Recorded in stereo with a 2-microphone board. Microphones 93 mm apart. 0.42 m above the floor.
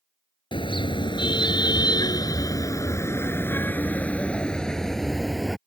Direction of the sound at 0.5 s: 75° left (ahead or behind).